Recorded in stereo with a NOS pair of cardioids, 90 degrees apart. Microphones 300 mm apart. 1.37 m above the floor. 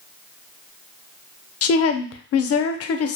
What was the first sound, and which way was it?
A woman speaking, 55° left.